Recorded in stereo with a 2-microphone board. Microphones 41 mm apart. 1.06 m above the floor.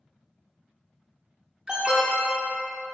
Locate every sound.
1.7 s an alarm: 25° right (ahead or behind), 1.3 m